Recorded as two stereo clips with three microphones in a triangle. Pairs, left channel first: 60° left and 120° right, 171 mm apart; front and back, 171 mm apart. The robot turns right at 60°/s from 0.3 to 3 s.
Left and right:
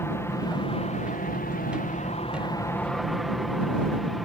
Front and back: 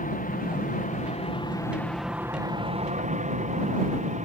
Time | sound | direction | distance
0.0 | an aircraft | 10° right | ?